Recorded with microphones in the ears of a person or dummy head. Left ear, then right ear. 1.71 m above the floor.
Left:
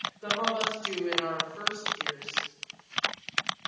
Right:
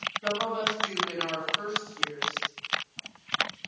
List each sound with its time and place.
0.2 s a woman speaking: 20° left (ahead or behind), 1.9 m